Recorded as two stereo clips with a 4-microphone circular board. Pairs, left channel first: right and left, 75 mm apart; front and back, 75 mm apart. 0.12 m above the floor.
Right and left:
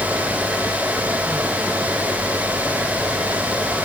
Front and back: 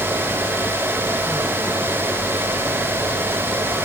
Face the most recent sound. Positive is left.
No sound to turn to.